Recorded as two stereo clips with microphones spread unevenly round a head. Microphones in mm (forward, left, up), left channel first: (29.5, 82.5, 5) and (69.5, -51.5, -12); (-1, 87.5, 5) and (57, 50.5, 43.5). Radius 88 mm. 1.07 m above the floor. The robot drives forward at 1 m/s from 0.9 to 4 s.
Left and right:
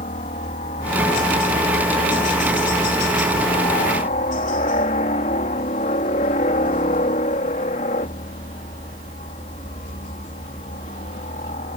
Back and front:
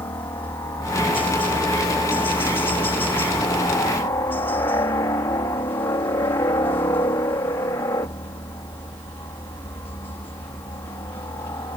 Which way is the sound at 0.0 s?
145° left.